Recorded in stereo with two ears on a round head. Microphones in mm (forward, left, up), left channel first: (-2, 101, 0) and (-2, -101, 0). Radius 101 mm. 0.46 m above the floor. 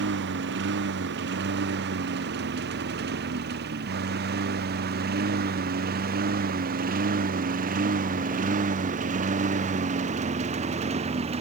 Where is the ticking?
I don't hear ticking.